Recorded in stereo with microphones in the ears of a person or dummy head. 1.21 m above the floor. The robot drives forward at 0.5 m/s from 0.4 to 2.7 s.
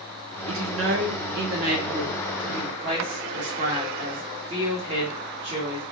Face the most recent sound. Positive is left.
turn(degrees=-35)  # may be behind; listen again after turning